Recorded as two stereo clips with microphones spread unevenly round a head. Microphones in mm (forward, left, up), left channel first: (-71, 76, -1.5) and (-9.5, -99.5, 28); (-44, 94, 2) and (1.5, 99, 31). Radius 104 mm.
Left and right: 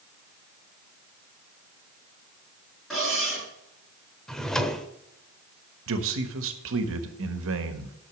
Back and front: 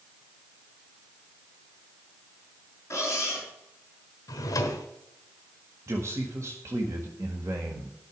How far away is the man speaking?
About 1.5 m.